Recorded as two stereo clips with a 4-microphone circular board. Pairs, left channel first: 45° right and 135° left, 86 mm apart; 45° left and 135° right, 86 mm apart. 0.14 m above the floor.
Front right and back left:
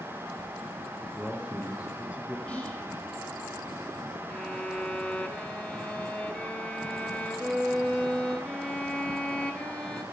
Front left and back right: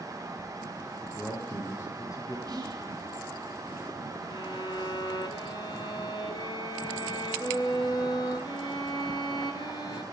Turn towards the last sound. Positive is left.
turn(degrees=35)